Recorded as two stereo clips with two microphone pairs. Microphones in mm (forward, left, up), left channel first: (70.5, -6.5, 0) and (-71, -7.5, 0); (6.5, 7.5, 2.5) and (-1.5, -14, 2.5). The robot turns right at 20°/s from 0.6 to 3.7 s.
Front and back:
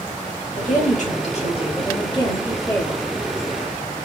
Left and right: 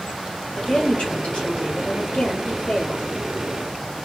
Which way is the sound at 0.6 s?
25° left.